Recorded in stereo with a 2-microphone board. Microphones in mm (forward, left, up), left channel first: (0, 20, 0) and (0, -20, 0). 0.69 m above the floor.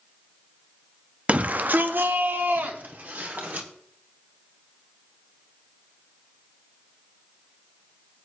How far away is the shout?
About 0.6 m.